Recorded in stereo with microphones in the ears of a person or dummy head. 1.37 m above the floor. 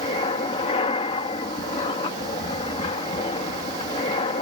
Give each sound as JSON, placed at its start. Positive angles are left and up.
{"t": 0.0, "sound": "an aircraft", "side_deg": 35}